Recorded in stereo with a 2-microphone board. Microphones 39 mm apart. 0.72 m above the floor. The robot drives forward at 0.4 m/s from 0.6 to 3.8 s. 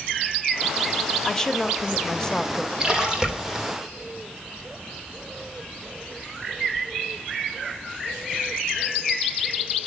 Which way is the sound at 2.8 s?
15° right (ahead or behind).